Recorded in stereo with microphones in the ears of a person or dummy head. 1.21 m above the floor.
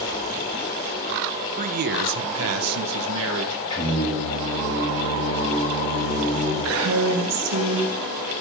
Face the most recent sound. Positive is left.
turn(degrees=-80)